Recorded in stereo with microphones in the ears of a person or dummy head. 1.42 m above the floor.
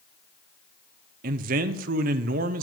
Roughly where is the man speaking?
Right.